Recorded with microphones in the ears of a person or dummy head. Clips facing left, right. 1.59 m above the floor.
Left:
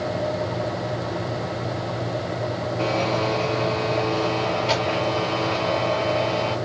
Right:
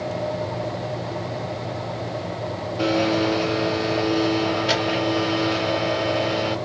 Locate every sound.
2.8 s a blender: 15° right (ahead or behind), 0.7 m